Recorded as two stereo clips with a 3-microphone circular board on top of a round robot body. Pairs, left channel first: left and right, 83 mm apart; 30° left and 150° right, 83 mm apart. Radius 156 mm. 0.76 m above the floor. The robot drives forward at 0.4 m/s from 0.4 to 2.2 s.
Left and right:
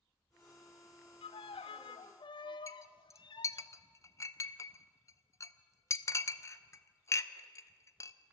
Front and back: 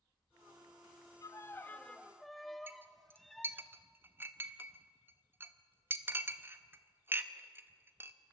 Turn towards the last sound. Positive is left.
turn(degrees=145)